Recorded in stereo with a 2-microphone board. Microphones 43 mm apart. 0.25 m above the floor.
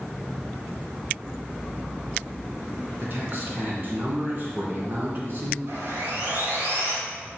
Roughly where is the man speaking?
Right.